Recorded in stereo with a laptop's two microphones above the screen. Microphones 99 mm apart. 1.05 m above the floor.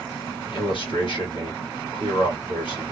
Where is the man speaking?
55° left (ahead or behind), 2.5 m.